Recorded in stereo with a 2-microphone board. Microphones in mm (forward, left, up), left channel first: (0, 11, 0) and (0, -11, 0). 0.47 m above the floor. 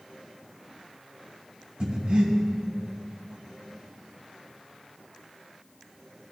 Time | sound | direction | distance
1.8 | breathing | 60° right (ahead or behind) | 2 m